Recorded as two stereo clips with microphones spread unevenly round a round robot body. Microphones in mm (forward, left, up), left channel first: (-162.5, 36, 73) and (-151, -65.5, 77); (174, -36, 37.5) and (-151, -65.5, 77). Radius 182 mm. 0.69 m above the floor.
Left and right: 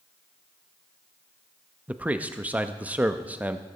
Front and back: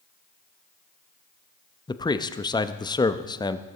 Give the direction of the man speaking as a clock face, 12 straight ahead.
1 o'clock.